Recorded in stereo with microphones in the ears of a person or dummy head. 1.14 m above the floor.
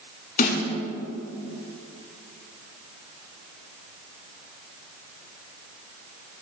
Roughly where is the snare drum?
Left.